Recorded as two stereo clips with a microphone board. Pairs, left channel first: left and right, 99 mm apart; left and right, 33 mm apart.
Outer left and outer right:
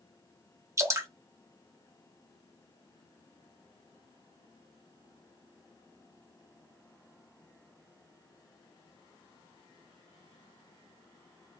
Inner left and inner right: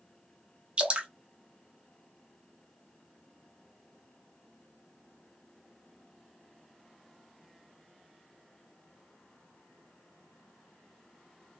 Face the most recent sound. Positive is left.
turn(degrees=-30)  # may be behind; listen again after turning